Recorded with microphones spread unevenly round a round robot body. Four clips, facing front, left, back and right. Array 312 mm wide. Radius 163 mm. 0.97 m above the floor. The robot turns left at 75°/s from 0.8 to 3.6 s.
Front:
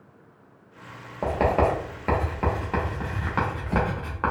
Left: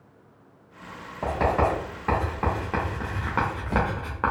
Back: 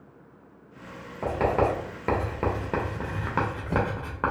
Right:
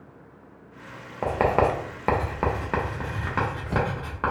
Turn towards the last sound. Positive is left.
turn(degrees=140)